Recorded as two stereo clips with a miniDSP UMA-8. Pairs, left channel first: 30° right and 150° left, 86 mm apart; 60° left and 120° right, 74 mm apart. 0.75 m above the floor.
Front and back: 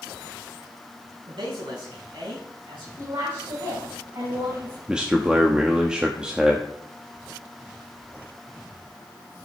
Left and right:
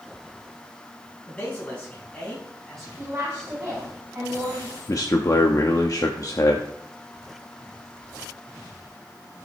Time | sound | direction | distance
1.3 | a man speaking | 130° left | 5 m
3.0 | a woman speaking | straight behind | 5 m
4.9 | a man speaking | 75° left | 1.0 m